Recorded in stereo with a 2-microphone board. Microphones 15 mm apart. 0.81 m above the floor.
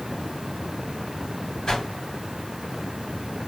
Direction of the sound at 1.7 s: 65° left (ahead or behind).